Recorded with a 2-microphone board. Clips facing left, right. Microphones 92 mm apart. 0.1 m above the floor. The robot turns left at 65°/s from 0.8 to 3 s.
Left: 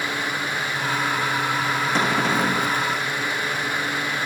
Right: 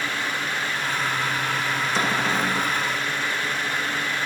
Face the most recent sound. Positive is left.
turn(degrees=55)